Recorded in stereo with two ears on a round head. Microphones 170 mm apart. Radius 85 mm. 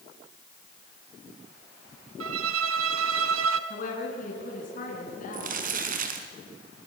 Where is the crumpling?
50° right (ahead or behind), 3 m.